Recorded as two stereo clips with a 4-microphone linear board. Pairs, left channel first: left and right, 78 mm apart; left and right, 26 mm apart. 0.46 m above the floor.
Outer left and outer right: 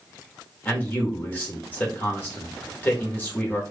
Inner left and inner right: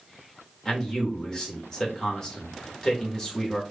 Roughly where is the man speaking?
Left.